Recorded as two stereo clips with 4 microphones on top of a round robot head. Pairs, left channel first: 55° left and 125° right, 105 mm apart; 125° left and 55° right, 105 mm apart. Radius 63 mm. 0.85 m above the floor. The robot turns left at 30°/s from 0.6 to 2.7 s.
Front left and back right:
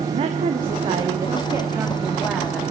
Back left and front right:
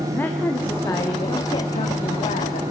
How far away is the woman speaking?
About 1.4 m.